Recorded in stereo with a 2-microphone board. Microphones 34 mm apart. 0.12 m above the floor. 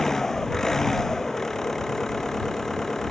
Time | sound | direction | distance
0.0 | an engine running | 15° left (ahead or behind) | ?